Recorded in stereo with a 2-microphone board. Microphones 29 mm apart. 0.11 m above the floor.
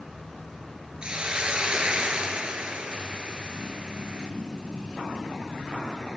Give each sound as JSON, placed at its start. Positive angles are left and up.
{"t": 1.0, "sound": "a hiss", "side_deg": -40, "distance_m": 1.0}